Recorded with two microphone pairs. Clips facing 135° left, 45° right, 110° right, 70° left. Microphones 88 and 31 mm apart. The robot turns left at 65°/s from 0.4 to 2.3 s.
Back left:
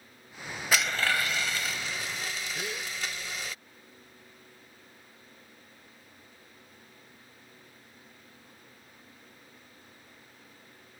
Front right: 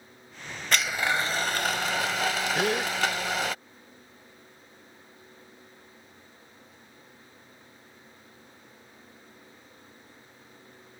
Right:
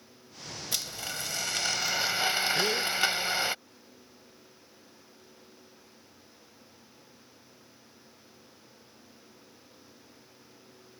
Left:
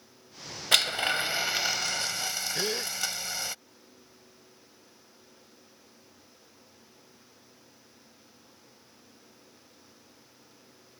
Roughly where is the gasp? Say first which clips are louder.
Front right 11 dB, right 4 dB; ahead.